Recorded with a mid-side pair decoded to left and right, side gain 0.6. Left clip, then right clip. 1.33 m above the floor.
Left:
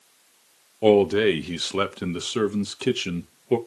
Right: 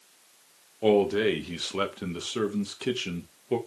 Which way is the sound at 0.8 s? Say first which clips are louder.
Left 5 dB; 35° left.